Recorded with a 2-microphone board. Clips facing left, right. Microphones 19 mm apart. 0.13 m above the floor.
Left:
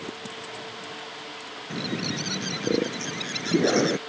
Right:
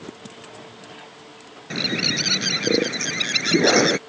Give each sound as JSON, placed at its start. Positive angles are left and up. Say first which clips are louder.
{"t": 1.7, "sound": "a bird", "louder": "right 8 dB", "side_deg": -40}